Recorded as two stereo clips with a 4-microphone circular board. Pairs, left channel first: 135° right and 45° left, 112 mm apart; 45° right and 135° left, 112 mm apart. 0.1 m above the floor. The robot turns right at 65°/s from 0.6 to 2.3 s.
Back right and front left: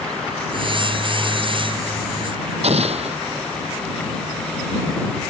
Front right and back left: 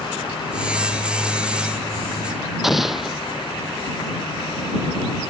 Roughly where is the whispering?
No whispering in this recording.